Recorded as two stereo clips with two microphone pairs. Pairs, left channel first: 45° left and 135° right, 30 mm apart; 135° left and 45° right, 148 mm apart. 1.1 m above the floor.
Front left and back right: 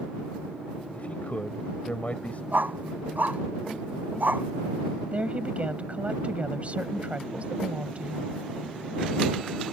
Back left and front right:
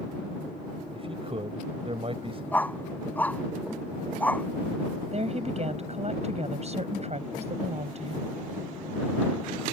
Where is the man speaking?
10° left.